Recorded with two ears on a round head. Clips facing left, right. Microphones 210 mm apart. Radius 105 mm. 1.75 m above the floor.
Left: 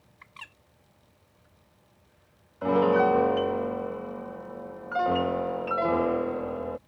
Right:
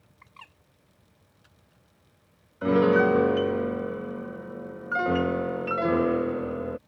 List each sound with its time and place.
0.2 s a bird: 20° left (ahead or behind)
2.6 s a piano: 25° right (ahead or behind)